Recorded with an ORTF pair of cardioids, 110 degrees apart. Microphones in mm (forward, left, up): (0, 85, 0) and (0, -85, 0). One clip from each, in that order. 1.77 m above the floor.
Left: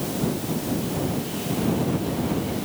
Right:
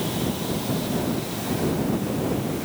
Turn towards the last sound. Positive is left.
No sound to turn to.